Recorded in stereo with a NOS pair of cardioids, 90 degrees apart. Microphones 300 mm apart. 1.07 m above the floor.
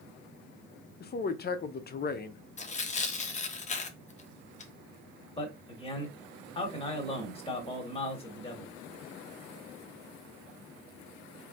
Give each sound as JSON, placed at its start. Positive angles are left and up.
{"t": 1.0, "sound": "a man speaking", "azimuth_deg": 35, "distance_m": 0.6}
{"t": 2.6, "sound": "tearing paper", "azimuth_deg": 25, "distance_m": 0.8}
{"t": 5.4, "sound": "a man speaking", "azimuth_deg": 20, "distance_m": 1.6}